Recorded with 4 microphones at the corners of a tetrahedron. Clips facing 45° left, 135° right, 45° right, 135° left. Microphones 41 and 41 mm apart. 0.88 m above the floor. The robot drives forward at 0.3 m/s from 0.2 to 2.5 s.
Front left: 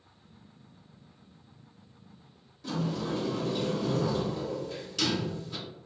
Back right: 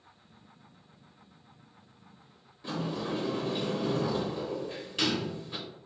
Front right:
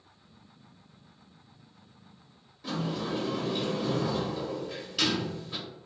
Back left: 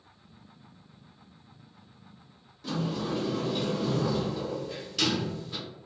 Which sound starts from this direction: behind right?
A sliding door, at 2.6 s.